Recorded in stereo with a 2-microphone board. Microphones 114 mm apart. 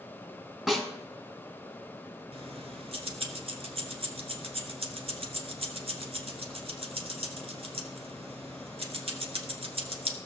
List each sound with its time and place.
0.7 s a snare drum: 5° right (ahead or behind), 1.7 m
2.3 s keys jangling: 55° right (ahead or behind), 1.5 m